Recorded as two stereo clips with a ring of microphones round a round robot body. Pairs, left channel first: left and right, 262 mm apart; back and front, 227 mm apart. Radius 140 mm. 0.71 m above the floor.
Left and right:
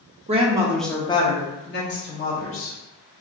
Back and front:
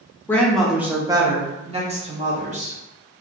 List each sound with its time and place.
0.3 s a woman speaking: 110° right, 0.6 m; by 2.8 s 55° left, 1.2 m